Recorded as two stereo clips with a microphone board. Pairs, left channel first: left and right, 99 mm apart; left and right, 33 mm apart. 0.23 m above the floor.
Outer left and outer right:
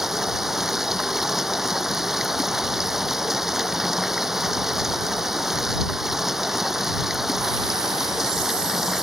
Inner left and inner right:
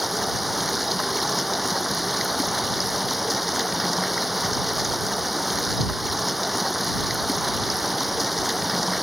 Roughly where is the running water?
Centre.